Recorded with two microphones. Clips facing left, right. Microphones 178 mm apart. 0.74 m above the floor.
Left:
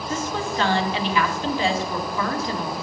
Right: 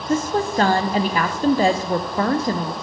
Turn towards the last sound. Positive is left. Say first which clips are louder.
# right 7 dB
turn(degrees=-45)  # may be behind; listen again after turning